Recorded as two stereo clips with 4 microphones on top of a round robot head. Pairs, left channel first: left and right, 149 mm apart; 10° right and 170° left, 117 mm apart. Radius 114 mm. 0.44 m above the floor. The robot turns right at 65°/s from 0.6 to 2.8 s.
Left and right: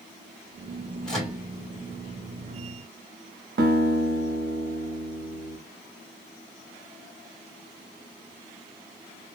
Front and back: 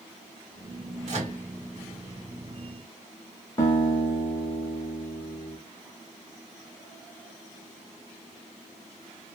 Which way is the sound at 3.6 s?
80° right.